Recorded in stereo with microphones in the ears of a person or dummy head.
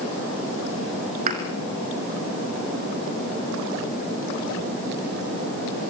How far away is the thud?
About 3.5 m.